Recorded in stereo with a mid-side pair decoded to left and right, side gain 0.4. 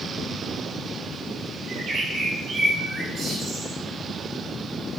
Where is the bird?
55° right, 2.5 m.